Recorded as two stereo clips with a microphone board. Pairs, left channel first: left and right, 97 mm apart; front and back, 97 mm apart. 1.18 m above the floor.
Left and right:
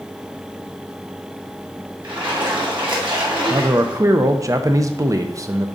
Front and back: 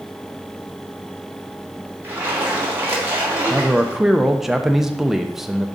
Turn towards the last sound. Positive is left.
turn(degrees=-95)